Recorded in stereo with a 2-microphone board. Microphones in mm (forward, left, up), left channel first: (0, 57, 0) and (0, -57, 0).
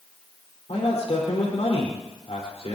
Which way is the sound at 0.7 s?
65° left (ahead or behind).